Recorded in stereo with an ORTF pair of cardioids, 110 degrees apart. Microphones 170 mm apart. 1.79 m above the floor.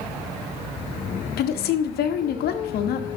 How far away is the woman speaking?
About 1.0 m.